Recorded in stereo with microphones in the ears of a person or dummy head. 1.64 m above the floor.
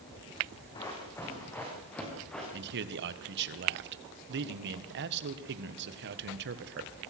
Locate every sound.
0.8 s running footsteps: 20° left (ahead or behind), 5 m; by 2.4 s 5° left (ahead or behind), 7 m
2.5 s a man speaking: 60° right (ahead or behind), 1.6 m